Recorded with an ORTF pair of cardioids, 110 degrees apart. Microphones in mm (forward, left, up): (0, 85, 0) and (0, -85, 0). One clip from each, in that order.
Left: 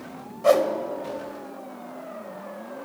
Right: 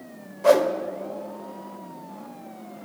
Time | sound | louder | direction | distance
0.4 | a whoosh | right 1 dB | 10° right | 1.1 m